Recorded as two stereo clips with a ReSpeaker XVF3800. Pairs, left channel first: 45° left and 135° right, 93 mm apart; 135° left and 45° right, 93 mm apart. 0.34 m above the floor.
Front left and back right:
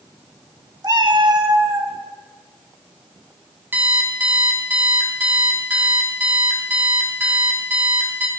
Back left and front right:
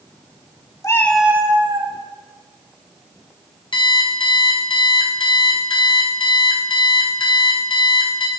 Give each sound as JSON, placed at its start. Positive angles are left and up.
{"t": 0.8, "sound": "a cat meowing", "azimuth_deg": -175, "distance_m": 0.6}
{"t": 3.7, "sound": "an alarm clock", "azimuth_deg": 155, "distance_m": 1.6}